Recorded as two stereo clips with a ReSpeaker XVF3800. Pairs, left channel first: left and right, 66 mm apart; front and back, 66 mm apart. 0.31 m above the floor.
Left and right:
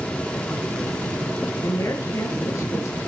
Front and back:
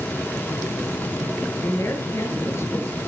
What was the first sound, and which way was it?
A woman speaking, 50° left.